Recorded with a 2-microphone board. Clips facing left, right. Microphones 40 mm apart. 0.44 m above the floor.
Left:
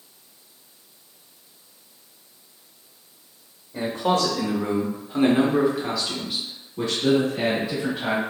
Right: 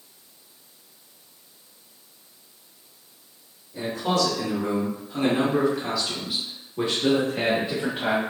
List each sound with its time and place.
3.7 s a man speaking: 50° left (ahead or behind), 1.6 m; by 8.2 s 50° right (ahead or behind), 1.5 m